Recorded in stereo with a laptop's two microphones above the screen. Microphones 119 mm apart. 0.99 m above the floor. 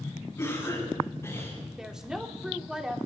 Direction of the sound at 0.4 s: 20° left (ahead or behind).